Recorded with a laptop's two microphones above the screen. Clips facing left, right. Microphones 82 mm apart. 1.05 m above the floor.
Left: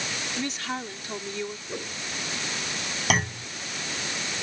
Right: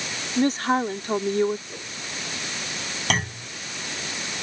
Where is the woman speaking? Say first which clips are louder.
Right 13 dB; 45° right (ahead or behind).